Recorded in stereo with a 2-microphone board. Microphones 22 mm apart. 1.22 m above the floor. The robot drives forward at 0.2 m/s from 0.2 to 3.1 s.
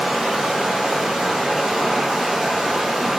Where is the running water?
80° right, 1.2 m; by 3.2 s 60° right (ahead or behind), 1.4 m.